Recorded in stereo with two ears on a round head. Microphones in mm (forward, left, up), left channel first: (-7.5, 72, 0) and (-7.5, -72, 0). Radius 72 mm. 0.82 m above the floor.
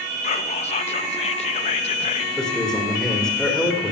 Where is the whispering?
40° left (ahead or behind), 0.5 m.